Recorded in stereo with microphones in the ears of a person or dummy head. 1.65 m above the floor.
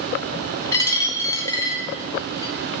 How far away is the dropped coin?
About 3.5 m.